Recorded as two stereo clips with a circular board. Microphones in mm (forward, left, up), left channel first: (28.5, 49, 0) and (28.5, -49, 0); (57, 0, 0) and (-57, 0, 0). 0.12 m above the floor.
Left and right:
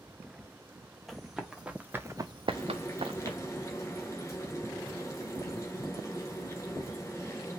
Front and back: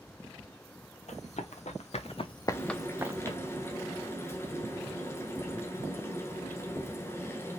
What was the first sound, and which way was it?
Running footsteps, straight ahead.